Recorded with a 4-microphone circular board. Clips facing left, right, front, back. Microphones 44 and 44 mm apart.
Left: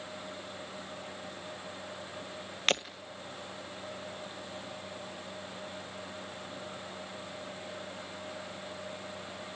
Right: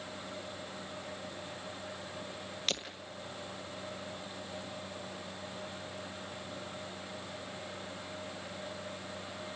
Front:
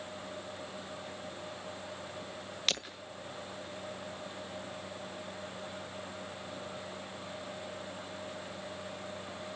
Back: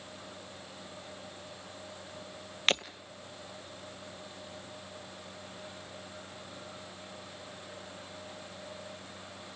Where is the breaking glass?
125° left, 1.4 m.